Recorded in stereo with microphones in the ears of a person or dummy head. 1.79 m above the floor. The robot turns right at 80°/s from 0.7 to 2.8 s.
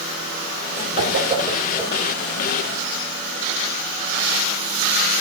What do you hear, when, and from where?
1.0 s a whoosh: 60° right (ahead or behind), 3.5 m; by 2.1 s 20° left (ahead or behind), 3.5 m